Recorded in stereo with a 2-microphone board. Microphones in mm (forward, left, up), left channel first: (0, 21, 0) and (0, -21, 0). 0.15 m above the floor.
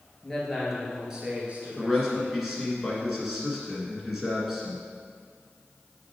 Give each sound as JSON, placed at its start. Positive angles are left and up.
{"t": 0.2, "sound": "a man speaking", "side_deg": 10, "distance_m": 2.5}
{"t": 1.8, "sound": "a man speaking", "side_deg": -5, "distance_m": 1.8}